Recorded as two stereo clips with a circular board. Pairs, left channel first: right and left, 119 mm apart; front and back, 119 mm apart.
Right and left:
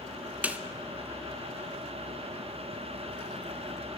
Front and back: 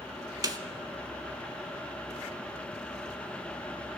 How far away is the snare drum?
About 0.8 m.